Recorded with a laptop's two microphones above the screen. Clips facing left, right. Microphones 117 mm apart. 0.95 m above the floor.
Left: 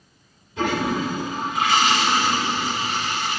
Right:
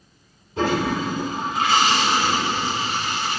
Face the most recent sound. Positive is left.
turn(degrees=-40)  # may be behind; listen again after turning